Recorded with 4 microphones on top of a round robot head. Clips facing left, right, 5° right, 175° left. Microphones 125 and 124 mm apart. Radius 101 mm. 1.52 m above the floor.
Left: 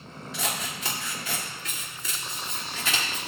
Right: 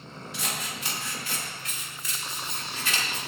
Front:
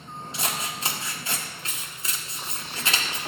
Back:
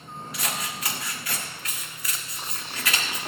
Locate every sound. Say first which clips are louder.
0.3 s scissors: left 3 dB, front 1 dB; 55° left, 1.7 m